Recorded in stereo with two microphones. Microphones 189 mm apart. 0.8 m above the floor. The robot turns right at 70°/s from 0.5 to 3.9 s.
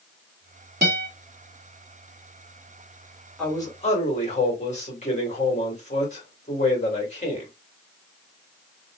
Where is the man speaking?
5° left, 2 m; by 7.5 s 40° left, 2 m.